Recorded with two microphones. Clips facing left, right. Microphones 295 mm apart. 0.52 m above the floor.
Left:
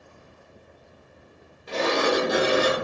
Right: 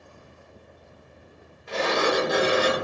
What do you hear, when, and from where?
1.7 s a sliding door: 40° left (ahead or behind), 1.3 m